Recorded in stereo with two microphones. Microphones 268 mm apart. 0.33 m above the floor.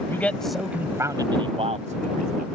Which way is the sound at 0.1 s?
10° left (ahead or behind).